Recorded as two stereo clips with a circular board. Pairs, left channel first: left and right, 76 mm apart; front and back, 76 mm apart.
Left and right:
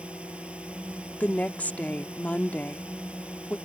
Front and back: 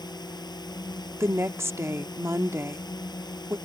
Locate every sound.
0.0 s a drone: 15° right
1.2 s a woman speaking: 150° left